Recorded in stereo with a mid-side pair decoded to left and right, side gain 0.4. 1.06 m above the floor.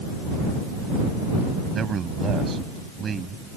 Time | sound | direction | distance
1.7 | a man speaking | 50° right | ?